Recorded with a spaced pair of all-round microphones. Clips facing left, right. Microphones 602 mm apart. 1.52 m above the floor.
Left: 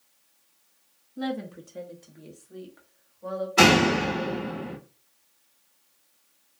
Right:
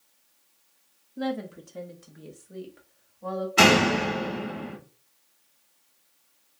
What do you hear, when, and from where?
1.2 s a woman speaking: 10° left (ahead or behind), 0.5 m; by 3.5 s 60° right (ahead or behind), 1.5 m
3.6 s a door slam: centre (ahead or behind), 0.7 m